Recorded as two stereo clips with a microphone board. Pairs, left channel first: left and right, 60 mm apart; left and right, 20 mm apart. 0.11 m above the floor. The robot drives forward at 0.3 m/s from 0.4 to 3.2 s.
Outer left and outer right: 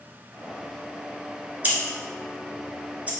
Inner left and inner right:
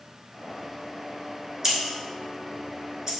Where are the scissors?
25° right (ahead or behind), 0.9 m.